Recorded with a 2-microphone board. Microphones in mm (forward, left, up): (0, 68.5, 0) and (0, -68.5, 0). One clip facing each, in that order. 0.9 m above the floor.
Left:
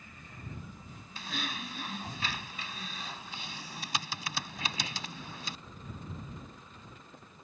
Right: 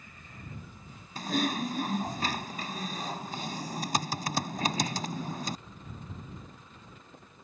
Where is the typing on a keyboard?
45° right (ahead or behind).